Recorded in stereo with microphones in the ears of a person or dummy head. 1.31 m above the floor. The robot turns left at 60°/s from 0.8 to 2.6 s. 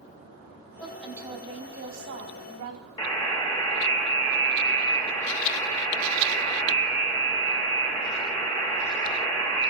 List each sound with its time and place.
0.8 s a woman speaking: 10° left, 3 m; by 2.9 s 100° right, 3 m
3.0 s a buzzer: 30° left (ahead or behind), 2.5 m